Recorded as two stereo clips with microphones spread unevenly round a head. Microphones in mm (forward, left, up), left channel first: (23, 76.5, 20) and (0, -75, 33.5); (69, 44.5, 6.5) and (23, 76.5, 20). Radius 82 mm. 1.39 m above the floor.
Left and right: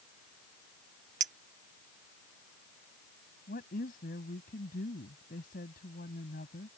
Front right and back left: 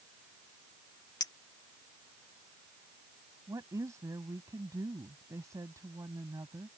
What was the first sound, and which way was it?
A clink, 65° right.